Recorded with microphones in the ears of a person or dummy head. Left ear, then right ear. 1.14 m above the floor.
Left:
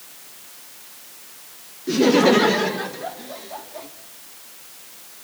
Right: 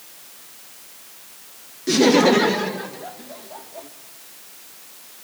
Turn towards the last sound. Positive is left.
turn(degrees=20)  # may be behind; listen again after turning